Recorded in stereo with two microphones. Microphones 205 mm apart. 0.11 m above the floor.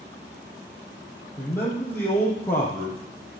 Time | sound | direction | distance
1.4 | a man speaking | 10° left (ahead or behind) | 3.5 m